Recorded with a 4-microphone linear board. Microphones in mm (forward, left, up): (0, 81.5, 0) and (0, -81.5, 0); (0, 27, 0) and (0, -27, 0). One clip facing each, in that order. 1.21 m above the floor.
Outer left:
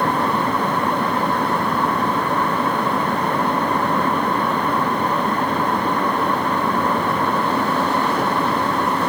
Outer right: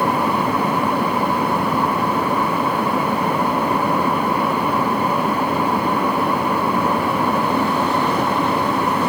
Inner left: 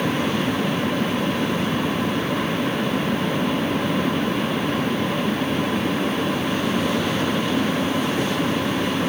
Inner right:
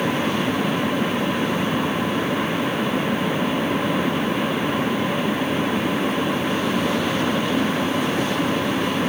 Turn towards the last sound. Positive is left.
No sound to turn to.